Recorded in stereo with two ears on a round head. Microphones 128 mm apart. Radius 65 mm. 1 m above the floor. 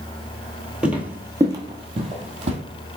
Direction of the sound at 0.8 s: 5° right (ahead or behind).